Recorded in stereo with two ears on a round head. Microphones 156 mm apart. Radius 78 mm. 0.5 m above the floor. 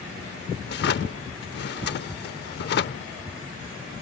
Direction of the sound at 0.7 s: 65° left (ahead or behind).